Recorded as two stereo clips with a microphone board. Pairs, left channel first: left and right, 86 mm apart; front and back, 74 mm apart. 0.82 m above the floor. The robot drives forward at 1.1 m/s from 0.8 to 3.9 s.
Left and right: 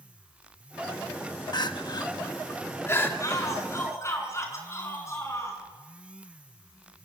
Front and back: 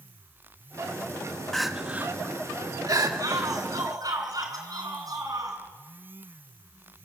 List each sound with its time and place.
1.5 s crying: 85° left, 1.0 m; by 3.1 s 150° left, 1.9 m
3.2 s a shout: 140° left, 7 m; by 5.6 s 145° left, 7.5 m